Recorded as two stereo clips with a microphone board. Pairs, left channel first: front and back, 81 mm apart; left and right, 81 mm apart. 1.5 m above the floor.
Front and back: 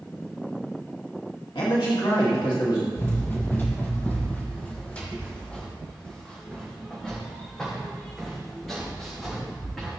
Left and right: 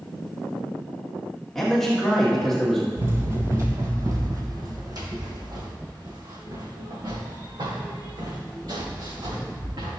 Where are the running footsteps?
45° right, 1.9 m; by 10.0 s 85° right, 5.5 m.